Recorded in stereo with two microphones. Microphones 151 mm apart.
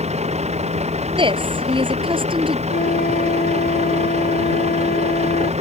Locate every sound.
0.0 s a vehicle: 45° right (ahead or behind)
1.2 s a woman speaking: 35° right (ahead or behind)
2.7 s a flute: 75° left (ahead or behind)